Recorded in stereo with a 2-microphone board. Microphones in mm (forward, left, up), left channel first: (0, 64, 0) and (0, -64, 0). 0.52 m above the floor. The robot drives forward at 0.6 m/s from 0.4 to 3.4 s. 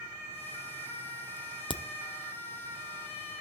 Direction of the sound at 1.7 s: 40° left (ahead or behind).